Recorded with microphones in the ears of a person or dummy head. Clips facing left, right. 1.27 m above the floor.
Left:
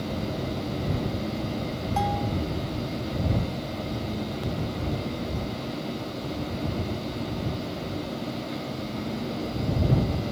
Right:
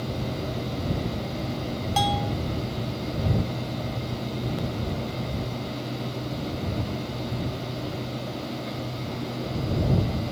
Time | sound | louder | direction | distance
2.0 | a bell | right 2 dB | 50° right (ahead or behind) | ?